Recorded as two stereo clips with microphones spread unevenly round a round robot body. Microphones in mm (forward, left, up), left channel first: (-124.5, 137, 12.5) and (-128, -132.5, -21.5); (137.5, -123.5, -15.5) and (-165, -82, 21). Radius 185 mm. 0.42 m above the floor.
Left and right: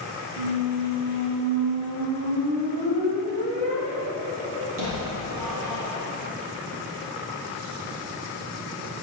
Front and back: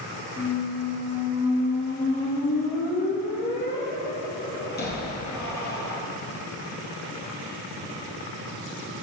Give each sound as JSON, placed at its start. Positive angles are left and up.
{"t": 0.4, "sound": "a squeak", "azimuth_deg": -65, "distance_m": 3.5}